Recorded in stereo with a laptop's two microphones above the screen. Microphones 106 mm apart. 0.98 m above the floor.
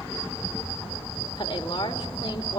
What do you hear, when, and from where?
1.4 s a woman speaking: 45° left (ahead or behind), 3 m